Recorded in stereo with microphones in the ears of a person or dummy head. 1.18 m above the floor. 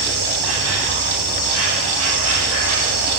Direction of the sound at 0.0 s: 65° right (ahead or behind).